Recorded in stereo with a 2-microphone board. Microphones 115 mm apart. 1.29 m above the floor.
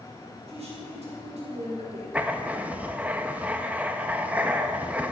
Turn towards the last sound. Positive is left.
turn(degrees=-15)  # may be behind; listen again after turning